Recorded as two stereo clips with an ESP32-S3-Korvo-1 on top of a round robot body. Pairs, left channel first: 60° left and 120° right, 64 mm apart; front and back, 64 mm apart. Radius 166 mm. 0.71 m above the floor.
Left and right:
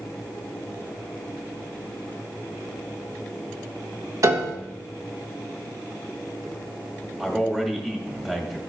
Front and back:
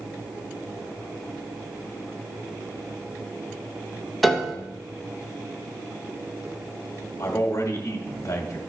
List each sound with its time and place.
4.2 s a piano: 90° right, 1.4 m
7.2 s a man speaking: 40° right, 2.0 m